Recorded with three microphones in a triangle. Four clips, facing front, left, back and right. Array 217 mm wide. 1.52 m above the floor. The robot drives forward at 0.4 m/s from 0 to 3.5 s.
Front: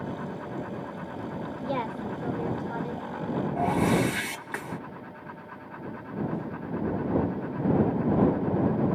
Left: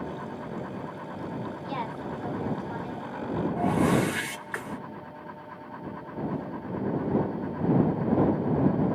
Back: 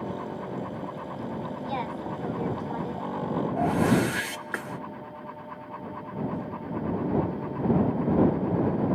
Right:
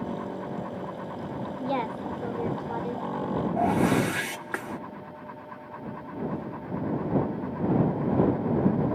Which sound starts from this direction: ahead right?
A woman speaking, at 1.6 s.